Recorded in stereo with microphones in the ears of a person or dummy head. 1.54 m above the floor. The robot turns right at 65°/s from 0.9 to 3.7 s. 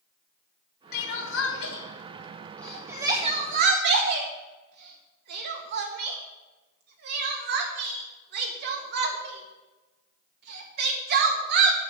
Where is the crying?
60° left (ahead or behind), 1.9 m; by 11.8 s 65° right (ahead or behind), 1.9 m.